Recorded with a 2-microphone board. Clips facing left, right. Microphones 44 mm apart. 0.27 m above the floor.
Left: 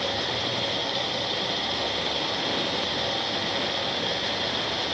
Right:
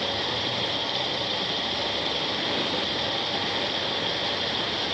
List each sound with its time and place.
0.0 s running water: 15° right (ahead or behind), 5 m